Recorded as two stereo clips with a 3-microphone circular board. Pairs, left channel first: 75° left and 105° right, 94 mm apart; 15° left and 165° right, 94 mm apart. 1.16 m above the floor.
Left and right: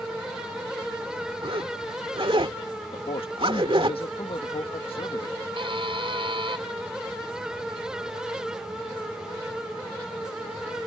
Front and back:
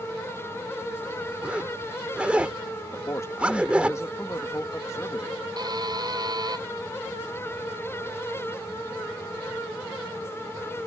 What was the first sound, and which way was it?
A zipper, 90° right.